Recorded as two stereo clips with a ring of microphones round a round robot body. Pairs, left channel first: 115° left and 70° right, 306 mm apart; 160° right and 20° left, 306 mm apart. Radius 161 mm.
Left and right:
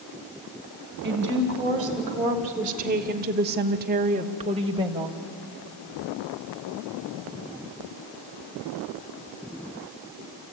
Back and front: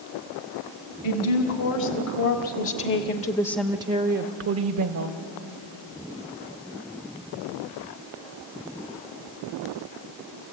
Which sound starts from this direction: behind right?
A woman speaking, at 1.0 s.